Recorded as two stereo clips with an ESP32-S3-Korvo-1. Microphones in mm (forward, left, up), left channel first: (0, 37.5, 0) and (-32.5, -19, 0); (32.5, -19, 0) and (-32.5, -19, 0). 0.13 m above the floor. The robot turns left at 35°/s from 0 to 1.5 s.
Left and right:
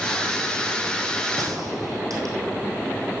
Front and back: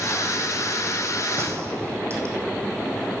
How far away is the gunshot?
About 2.5 m.